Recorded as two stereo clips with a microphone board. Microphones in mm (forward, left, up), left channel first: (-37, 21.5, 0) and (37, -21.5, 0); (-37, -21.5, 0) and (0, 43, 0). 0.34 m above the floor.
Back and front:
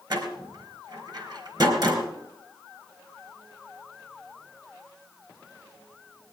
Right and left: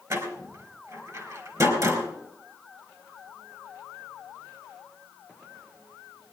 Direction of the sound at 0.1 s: 15° left.